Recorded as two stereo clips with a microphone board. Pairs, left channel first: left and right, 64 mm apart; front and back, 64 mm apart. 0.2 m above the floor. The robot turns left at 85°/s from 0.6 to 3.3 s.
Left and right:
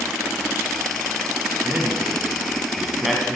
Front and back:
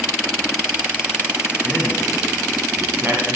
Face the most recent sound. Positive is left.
turn(degrees=165)